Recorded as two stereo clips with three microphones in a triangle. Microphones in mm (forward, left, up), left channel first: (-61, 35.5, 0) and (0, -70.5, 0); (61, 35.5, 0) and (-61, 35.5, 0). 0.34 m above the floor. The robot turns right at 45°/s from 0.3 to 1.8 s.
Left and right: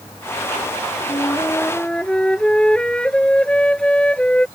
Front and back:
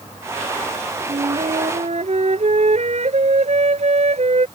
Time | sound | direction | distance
1.1 | a flute | 170° left | ?